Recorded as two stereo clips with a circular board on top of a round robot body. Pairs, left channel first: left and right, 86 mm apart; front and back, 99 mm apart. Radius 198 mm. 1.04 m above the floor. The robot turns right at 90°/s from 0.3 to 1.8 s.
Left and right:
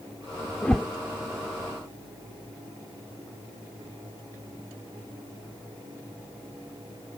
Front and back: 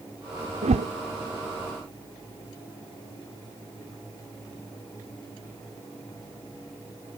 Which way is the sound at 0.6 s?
165° left.